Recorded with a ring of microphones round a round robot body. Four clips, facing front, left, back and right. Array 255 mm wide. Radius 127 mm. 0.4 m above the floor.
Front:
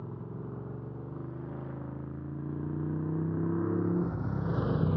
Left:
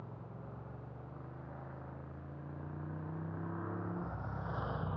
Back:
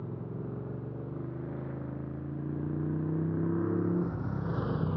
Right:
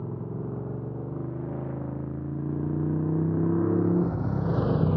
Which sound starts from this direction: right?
A motorcycle, at 0.0 s.